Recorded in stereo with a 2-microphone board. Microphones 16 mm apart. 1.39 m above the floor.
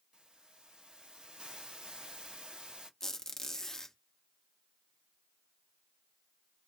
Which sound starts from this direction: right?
A hiss, at 0.1 s.